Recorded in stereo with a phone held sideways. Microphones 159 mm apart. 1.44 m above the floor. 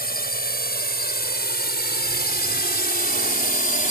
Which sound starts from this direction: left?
A drone, at 0.0 s.